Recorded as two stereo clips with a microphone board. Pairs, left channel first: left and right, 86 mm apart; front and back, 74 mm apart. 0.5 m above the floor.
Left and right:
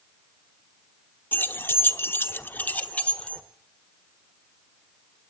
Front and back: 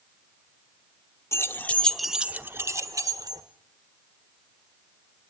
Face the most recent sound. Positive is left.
turn(degrees=165)